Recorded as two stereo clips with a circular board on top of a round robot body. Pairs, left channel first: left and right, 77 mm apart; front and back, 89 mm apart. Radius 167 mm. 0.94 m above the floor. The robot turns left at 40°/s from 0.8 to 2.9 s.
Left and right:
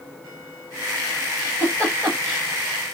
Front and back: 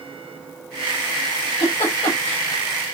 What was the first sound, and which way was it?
A giggle, 40° left.